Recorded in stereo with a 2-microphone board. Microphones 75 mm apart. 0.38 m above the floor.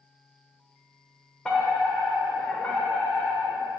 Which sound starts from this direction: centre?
A fire alarm, at 1.4 s.